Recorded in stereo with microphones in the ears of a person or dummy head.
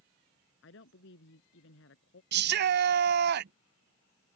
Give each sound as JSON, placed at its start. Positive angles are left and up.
{"t": 0.6, "sound": "a woman speaking", "side_deg": 70}
{"t": 2.3, "sound": "a shout", "side_deg": -55}